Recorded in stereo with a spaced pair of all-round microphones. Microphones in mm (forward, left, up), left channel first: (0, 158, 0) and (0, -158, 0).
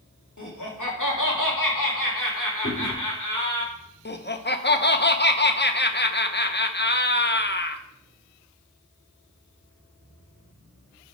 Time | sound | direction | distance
0.4 | laughter | 65° left (ahead or behind) | 2.5 m
2.6 | chewing | 15° left (ahead or behind) | 4.5 m
4.0 | laughter | 35° left (ahead or behind) | 1.0 m